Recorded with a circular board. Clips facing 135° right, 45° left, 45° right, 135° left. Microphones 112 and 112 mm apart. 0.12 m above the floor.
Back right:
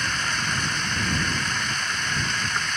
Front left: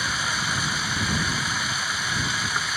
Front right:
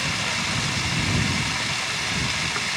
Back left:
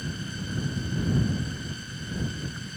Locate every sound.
0.0 s running water: 35° right